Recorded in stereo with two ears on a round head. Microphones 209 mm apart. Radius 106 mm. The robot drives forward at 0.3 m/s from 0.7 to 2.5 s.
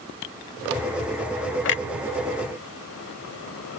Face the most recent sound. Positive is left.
turn(degrees=60)  # may be behind; listen again after turning